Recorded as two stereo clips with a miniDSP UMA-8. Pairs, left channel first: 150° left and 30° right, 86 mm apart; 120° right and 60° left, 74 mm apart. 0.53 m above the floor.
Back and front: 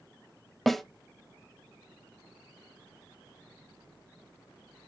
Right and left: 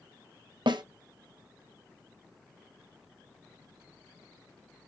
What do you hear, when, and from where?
0.7 s a snare drum: 60° left, 0.7 m